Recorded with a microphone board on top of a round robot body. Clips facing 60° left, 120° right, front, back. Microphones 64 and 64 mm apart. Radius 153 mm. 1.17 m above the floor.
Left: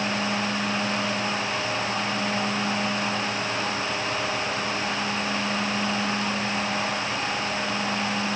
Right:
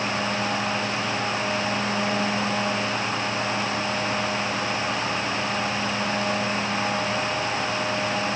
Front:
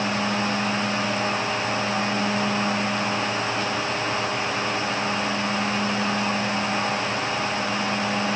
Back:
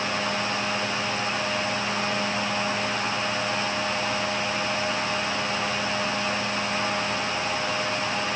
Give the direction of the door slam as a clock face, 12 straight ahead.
No door slam in this recording.